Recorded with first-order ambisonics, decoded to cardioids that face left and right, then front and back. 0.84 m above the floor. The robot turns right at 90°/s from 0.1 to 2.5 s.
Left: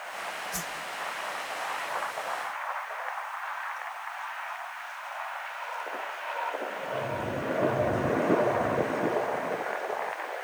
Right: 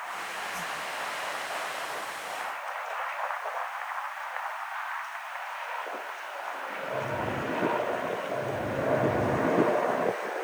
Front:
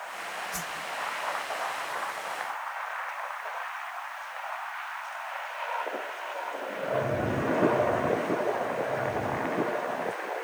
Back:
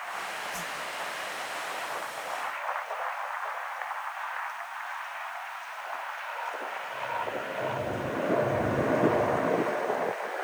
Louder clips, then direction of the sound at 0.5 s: Right 1 dB, even; 60° left.